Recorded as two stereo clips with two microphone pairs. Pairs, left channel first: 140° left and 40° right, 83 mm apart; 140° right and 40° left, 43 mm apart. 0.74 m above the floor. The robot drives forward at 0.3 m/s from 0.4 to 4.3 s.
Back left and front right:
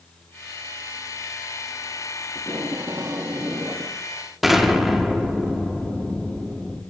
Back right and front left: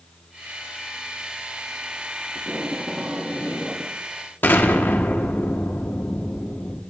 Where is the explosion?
125° right, 1.4 m.